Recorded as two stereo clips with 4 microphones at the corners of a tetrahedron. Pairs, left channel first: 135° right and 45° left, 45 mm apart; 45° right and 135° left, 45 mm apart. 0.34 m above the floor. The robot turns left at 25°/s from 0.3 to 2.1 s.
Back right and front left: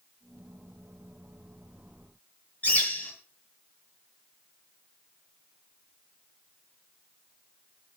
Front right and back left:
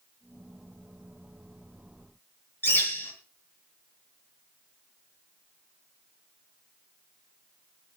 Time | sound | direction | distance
2.6 | a bird | 80° right | 5 m